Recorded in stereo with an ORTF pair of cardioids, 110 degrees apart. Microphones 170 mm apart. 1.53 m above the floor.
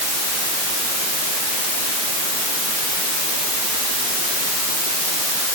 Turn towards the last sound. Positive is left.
No sound to turn to.